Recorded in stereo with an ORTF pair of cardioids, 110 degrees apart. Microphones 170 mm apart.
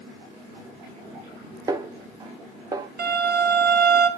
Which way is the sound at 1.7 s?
20° right.